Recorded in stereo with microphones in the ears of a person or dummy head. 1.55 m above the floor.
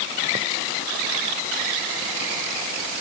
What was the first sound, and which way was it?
Only background noise.